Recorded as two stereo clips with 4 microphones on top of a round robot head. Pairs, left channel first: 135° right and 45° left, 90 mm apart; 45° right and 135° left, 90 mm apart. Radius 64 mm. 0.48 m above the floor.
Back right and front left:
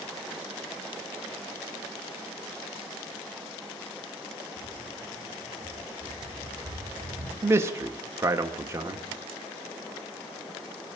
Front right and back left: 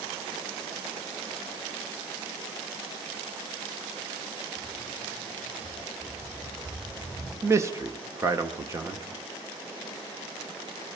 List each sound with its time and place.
4.6 s footsteps: 100° left, 9 m; by 7.3 s 90° left, 8 m
7.4 s a man speaking: 95° left, 1.1 m